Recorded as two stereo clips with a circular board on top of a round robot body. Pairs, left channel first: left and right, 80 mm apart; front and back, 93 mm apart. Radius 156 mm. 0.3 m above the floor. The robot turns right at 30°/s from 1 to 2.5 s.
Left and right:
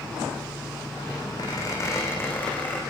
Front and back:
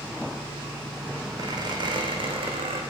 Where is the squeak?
130° left, 6.5 m; by 2.8 s 160° left, 6.5 m.